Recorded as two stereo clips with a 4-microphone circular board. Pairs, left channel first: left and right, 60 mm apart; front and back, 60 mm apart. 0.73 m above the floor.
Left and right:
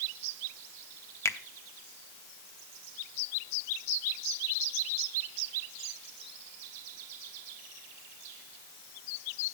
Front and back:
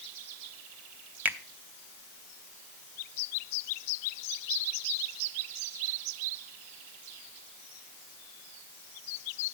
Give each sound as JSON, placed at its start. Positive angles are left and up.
{"t": 1.2, "sound": "a finger snap", "azimuth_deg": 120, "distance_m": 0.8}